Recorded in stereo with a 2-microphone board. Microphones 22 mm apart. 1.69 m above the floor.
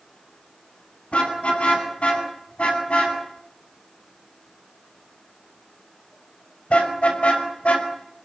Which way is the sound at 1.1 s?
70° left (ahead or behind).